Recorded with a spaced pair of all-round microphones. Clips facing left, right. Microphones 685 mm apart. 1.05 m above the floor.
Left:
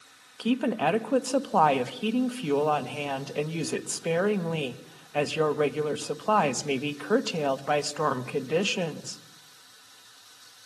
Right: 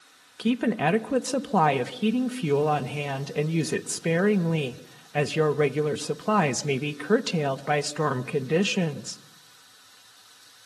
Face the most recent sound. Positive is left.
turn(degrees=-55)  # may be behind; listen again after turning